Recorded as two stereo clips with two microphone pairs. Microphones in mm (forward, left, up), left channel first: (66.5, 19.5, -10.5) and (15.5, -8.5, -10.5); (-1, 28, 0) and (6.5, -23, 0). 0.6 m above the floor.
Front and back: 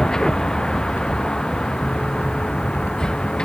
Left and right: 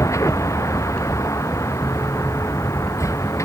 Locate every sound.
0.0 s a vehicle: 105° left